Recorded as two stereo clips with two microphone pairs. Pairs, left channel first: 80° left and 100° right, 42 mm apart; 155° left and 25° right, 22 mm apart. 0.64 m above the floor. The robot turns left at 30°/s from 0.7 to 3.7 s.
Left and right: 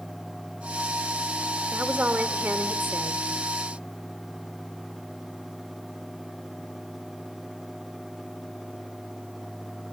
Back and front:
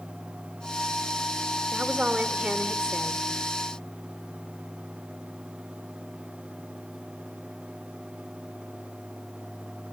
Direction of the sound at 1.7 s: 40° right.